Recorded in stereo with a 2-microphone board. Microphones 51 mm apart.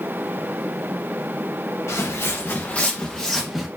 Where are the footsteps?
65° left (ahead or behind), 1.1 m; by 3.7 s 5° right (ahead or behind), 1.2 m.